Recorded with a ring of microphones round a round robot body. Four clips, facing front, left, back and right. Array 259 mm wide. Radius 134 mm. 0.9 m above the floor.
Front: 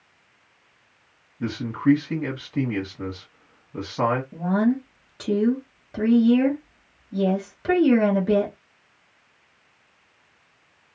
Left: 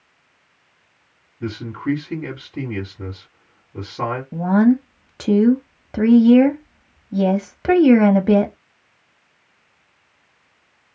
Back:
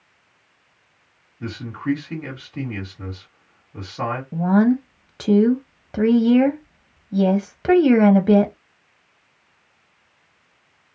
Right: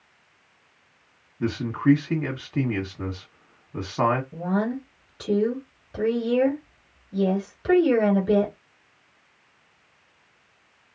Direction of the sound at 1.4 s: 70° right.